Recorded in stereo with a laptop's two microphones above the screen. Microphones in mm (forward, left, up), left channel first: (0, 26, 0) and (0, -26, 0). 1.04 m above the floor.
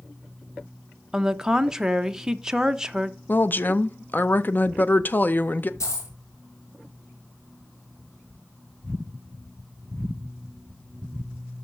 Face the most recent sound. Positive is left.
turn(degrees=70)  # may be behind; listen again after turning